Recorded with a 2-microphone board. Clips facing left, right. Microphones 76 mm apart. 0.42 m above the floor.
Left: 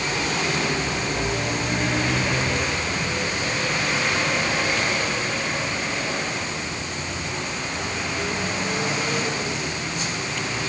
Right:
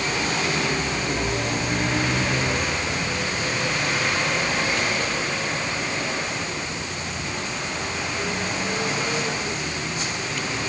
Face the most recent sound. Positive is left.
No sound to turn to.